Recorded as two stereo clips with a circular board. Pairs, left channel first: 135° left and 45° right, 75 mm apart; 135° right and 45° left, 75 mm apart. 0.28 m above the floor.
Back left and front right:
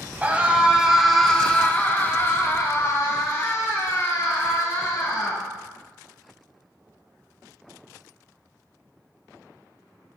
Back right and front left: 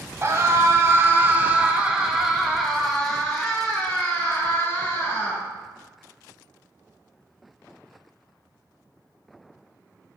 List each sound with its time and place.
0.2 s a scream: 15° left, 1.4 m; by 5.4 s 160° left, 3 m